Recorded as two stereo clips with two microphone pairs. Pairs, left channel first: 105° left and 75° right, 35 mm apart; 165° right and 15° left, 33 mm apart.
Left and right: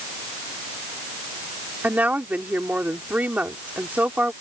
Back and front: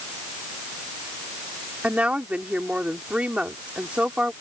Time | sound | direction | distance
1.8 | a woman speaking | 35° right | ?